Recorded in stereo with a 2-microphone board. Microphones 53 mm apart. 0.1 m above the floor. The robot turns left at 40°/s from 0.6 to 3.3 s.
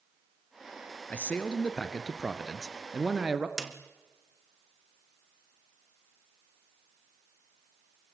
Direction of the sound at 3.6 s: 5° right (ahead or behind).